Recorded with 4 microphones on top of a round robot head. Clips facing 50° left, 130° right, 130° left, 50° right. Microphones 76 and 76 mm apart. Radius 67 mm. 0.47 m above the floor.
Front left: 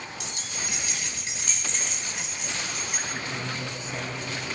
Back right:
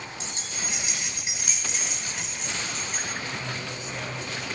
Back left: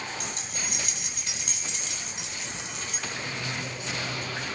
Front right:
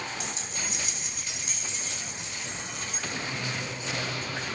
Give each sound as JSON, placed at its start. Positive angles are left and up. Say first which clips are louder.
{"t": 0.2, "sound": "keys jangling", "louder": "even, even", "azimuth_deg": 170, "distance_m": 2.5}
{"t": 3.1, "sound": "a man speaking", "louder": "even, front right 1 dB", "azimuth_deg": 0, "distance_m": 4.5}